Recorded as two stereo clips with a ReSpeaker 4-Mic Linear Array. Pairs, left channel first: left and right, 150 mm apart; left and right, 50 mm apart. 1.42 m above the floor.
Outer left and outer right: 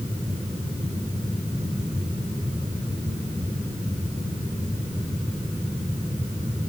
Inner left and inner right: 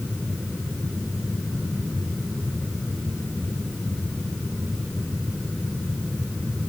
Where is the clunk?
I don't hear a clunk.